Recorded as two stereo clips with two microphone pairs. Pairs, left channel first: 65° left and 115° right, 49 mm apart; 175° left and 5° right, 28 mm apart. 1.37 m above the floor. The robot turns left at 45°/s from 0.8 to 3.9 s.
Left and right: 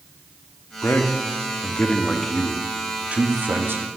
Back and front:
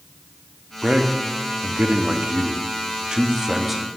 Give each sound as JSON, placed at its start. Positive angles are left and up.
{"t": 0.8, "sound": "a man speaking", "azimuth_deg": 45, "distance_m": 0.6}